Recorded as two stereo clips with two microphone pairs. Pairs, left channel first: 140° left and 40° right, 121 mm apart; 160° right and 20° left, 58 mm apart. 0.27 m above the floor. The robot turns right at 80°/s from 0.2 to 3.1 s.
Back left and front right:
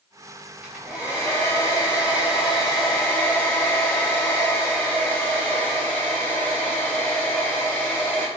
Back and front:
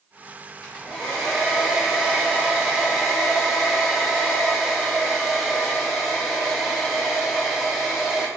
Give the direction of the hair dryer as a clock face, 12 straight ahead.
4 o'clock.